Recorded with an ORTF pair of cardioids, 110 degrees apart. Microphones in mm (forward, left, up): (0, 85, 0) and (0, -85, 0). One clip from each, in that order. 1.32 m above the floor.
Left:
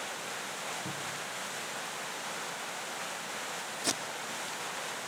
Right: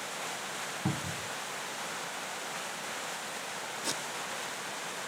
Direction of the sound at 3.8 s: 60° left.